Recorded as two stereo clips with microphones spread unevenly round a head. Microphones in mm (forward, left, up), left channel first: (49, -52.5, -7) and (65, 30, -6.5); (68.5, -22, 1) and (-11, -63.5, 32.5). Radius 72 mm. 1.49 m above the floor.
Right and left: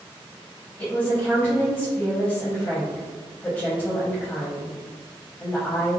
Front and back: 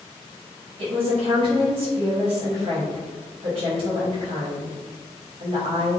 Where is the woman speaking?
Straight behind, 0.8 m.